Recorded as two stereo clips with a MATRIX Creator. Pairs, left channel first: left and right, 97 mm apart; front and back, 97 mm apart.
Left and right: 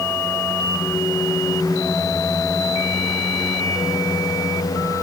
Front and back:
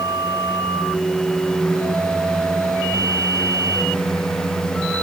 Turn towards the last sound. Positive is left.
No sound to turn to.